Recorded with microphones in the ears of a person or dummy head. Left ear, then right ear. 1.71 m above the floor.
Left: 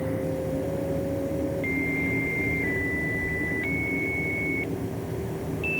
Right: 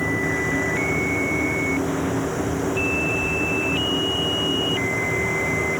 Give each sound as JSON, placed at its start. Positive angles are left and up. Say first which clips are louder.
{"t": 0.0, "sound": "a machine running", "louder": "right 7 dB", "side_deg": -40}